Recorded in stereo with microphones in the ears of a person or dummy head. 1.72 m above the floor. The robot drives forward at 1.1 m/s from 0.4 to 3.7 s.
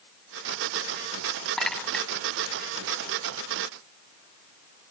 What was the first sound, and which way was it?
A clink, centre (ahead or behind).